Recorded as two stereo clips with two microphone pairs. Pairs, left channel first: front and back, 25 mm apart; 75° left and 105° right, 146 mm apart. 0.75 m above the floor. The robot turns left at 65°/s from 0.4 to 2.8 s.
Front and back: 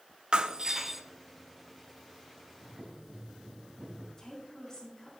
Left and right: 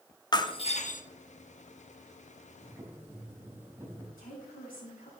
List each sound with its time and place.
0.3 s breaking glass: 135° left, 0.8 m; by 1.0 s 95° left, 0.8 m
2.6 s boiling: 165° right, 3.5 m; by 4.1 s 175° right, 3.5 m
4.2 s a woman speaking: 65° left, 5 m